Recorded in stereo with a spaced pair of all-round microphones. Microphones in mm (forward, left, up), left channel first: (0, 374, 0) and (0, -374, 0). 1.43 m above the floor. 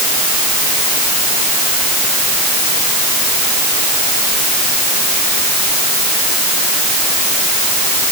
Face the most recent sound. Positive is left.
No sound to turn to.